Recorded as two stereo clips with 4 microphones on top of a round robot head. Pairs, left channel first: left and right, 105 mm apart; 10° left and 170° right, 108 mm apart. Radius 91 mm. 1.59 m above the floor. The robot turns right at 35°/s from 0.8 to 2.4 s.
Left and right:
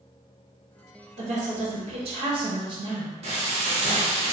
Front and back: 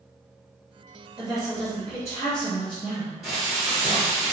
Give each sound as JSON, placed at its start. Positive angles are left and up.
{"t": 1.2, "sound": "a woman speaking", "azimuth_deg": -95, "distance_m": 1.2}
{"t": 3.2, "sound": "frying", "azimuth_deg": -80, "distance_m": 0.8}